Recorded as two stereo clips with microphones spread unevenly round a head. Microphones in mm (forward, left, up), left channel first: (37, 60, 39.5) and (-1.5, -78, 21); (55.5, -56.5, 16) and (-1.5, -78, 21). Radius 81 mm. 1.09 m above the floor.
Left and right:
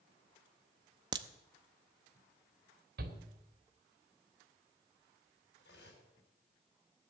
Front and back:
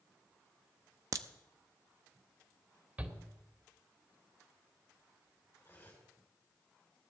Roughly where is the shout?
Right.